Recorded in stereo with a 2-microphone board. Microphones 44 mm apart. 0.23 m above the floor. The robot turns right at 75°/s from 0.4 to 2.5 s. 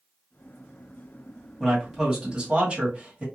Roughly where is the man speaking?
Behind.